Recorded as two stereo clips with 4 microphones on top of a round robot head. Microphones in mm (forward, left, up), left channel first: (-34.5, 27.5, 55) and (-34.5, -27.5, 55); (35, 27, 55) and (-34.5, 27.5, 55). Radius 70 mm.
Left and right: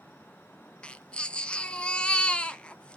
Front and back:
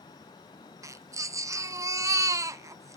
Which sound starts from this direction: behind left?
A baby crying, at 0.8 s.